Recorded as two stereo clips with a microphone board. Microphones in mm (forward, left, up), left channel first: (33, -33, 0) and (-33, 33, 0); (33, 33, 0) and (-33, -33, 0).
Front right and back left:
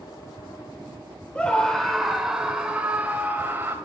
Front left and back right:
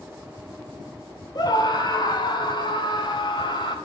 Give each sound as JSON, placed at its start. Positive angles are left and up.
{"t": 1.4, "sound": "a scream", "azimuth_deg": 30, "distance_m": 1.5}